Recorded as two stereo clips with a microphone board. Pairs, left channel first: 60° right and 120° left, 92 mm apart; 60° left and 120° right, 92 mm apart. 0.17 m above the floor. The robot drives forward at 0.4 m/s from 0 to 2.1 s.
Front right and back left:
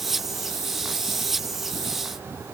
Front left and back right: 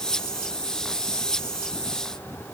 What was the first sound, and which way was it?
Only background noise.